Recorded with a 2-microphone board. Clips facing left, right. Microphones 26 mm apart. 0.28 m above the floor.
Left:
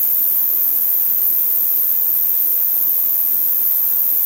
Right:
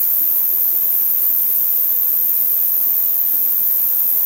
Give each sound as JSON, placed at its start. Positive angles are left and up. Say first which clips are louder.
{"t": 0.0, "sound": "an insect", "louder": "even", "side_deg": 50, "distance_m": 5.0}